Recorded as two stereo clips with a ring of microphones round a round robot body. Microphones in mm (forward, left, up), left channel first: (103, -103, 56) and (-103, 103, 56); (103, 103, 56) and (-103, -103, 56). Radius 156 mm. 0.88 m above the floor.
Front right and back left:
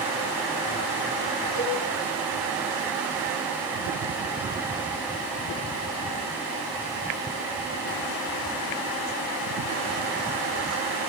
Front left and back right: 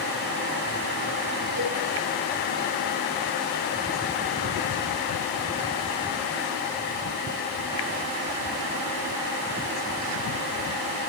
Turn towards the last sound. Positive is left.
turn(degrees=-80)